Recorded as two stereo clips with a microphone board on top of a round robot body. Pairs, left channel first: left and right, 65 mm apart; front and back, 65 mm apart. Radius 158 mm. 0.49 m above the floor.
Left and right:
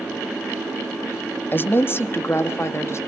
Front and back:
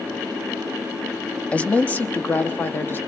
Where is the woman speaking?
55° left, 1.5 m; by 3.0 s 50° left, 2.5 m.